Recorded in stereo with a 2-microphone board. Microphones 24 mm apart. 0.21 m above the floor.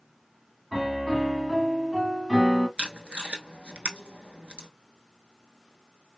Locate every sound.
0.7 s a piano: 15° right (ahead or behind), 1.3 m
2.8 s tape being pulled: 70° right (ahead or behind), 0.7 m